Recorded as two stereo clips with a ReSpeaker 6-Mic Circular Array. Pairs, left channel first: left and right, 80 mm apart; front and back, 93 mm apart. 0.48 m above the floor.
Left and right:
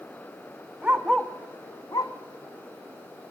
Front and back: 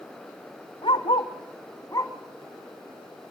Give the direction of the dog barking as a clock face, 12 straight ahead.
1 o'clock.